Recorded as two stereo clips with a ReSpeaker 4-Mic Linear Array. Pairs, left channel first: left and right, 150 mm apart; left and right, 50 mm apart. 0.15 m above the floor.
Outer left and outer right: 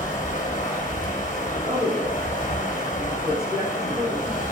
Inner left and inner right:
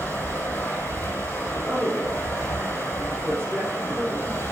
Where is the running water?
65° left (ahead or behind), 2.5 m.